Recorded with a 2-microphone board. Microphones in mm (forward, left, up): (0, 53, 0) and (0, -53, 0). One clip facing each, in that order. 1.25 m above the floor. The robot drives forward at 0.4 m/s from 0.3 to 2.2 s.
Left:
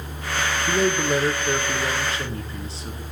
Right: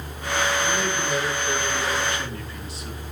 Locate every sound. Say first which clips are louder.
0.7 s a man speaking: left 4 dB; 45° left (ahead or behind), 0.6 m; by 3.0 s 30° left (ahead or behind), 0.8 m